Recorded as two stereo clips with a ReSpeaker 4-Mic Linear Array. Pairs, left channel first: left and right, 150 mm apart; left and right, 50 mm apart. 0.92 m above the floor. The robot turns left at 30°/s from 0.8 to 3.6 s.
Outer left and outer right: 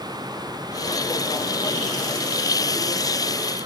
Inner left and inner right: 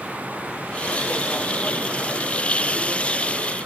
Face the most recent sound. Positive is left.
No sound to turn to.